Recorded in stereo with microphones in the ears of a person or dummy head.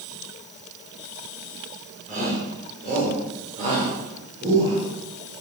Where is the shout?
40° right (ahead or behind), 6.5 m; by 4.8 s 35° right (ahead or behind), 7.5 m.